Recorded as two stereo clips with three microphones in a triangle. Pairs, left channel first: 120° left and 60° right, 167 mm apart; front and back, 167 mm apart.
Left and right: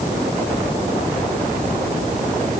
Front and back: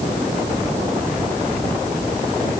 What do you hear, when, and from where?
Only background noise.